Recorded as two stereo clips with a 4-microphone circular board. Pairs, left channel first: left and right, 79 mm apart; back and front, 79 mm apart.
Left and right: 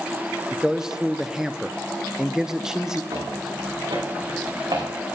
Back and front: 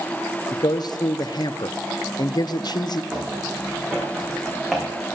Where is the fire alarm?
I don't hear a fire alarm.